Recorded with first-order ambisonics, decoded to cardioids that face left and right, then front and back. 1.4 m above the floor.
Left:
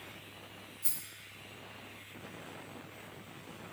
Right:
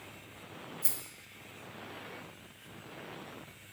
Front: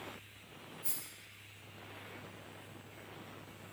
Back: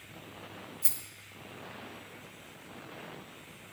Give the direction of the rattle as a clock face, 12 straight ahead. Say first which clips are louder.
Right 1 dB, back 5 dB; 5 o'clock.